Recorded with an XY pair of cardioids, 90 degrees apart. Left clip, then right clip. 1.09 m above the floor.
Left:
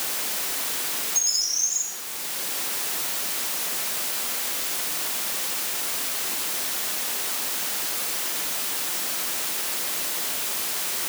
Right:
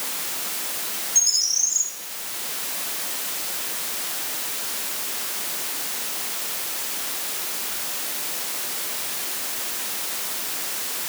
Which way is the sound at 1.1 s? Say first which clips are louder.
Right 4 dB; 40° right.